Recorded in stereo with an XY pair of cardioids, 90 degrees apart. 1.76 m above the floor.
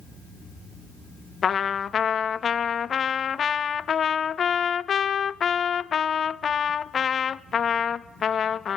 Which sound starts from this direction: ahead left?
A trumpet, at 1.4 s.